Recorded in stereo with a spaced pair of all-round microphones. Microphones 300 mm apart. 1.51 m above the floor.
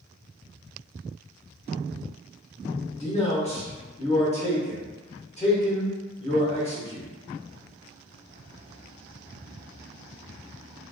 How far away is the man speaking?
About 1.4 m.